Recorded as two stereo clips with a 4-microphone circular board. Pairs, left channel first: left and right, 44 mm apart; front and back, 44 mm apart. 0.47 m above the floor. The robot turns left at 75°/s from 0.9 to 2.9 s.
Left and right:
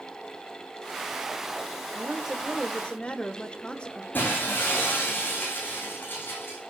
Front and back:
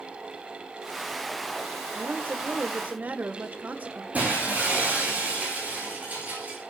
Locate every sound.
1.9 s a woman speaking: 145° right, 1.3 m; by 4.0 s 145° left, 1.3 m
4.1 s breaking glass: 125° left, 9.5 m